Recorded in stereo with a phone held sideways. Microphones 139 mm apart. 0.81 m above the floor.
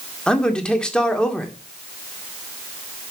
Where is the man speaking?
5° left (ahead or behind), 1.9 m.